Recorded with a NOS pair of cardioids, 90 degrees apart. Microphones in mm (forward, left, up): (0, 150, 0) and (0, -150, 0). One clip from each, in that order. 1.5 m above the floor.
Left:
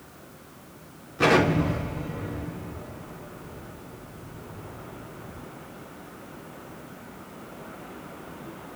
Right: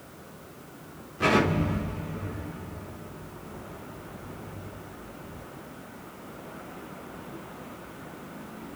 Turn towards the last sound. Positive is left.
turn(degrees=50)